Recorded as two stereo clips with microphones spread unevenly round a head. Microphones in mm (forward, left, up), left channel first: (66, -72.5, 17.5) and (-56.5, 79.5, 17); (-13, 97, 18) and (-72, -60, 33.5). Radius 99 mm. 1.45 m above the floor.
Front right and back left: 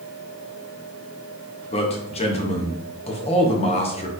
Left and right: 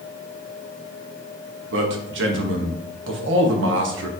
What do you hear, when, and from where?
1.7 s a man speaking: 110° right, 0.8 m